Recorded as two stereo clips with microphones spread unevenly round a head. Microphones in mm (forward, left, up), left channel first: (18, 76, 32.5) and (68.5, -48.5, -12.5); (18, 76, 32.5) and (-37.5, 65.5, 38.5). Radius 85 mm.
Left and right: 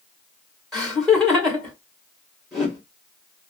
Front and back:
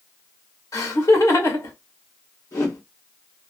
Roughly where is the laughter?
Ahead left.